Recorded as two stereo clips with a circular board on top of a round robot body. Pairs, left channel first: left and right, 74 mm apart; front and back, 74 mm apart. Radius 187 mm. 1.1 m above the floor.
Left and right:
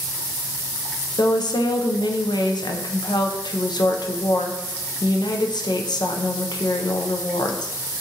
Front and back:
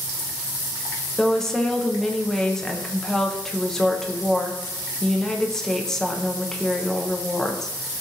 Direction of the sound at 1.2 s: 85° left.